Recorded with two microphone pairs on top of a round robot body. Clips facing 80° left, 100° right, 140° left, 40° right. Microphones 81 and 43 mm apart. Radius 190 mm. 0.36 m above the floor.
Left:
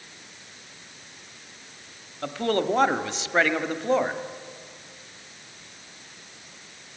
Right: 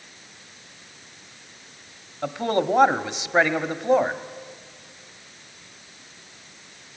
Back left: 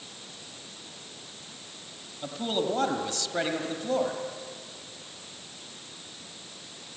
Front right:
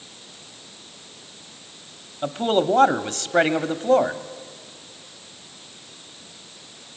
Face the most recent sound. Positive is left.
turn(degrees=-35)